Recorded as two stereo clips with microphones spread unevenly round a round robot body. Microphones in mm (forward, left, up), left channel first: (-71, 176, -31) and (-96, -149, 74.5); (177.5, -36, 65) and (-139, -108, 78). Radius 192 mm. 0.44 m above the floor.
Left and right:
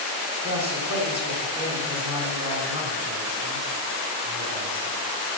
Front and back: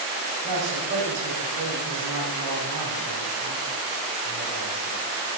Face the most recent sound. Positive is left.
turn(degrees=-170)